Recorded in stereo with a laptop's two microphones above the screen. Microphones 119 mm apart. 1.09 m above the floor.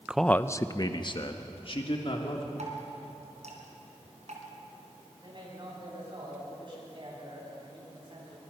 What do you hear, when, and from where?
0.1 s a man speaking: 10° right (ahead or behind), 0.6 m; by 2.5 s 55° left (ahead or behind), 3 m
2.6 s dripping: 75° right (ahead or behind), 4 m
5.2 s a man speaking: 45° right (ahead or behind), 9.5 m